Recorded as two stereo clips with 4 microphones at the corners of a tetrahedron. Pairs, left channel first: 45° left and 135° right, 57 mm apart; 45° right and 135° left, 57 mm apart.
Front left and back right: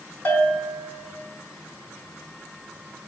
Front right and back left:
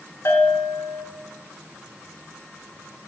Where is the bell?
15° right, 0.9 m.